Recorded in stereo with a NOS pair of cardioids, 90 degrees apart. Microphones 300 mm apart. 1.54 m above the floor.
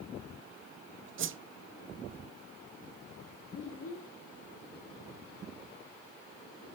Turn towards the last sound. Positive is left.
turn(degrees=50)